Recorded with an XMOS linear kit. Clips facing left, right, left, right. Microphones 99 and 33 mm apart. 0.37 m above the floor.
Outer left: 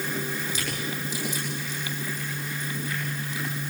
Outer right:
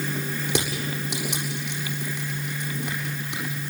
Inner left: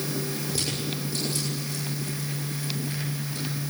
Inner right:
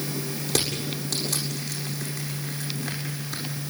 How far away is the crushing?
About 7.5 m.